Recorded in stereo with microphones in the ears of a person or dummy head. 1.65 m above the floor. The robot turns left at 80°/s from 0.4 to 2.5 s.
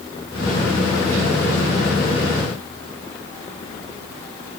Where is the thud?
No thud in this recording.